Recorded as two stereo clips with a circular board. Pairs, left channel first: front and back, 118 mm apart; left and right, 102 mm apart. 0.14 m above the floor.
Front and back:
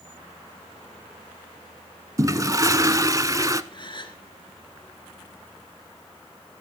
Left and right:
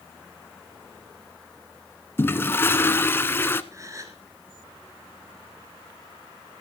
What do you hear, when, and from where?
2.2 s a toilet flushing: 140° left, 0.8 m
3.7 s a gasp: 40° right, 2.5 m